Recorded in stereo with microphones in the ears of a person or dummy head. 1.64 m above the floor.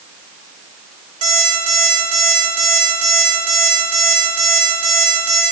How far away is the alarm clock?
About 4 m.